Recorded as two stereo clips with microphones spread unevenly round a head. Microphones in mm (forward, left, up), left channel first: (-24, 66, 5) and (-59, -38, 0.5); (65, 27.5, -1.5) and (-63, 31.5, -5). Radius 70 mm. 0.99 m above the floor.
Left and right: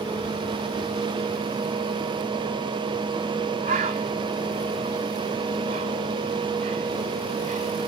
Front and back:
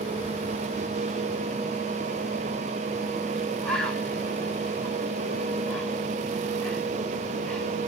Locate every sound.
3.6 s a bird: 85° right, 1.4 m